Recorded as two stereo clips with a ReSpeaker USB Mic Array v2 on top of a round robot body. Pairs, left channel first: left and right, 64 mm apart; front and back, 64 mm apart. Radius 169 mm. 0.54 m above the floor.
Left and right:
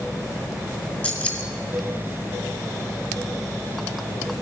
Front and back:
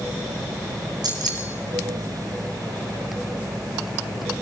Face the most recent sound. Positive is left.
turn(degrees=165)